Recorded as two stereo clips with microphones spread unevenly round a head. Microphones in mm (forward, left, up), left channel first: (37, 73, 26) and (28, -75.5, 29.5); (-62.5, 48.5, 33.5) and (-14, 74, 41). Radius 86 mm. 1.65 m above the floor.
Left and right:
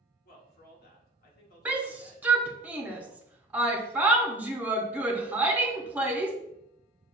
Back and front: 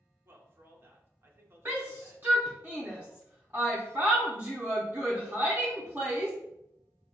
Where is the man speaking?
65° left, 1.0 m.